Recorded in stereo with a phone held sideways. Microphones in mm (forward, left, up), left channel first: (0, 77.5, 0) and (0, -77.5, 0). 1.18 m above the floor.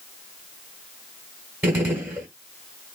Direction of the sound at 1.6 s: 15° right (ahead or behind).